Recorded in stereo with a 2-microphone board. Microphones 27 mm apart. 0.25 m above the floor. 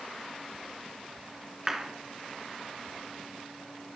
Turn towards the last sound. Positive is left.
turn(degrees=-15)  # may be behind; listen again after turning